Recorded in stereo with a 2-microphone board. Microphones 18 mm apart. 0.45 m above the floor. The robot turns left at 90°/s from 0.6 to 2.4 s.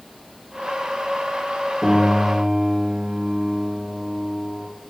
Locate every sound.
1.8 s a piano: 5° right, 3 m; by 4.7 s 60° right, 3 m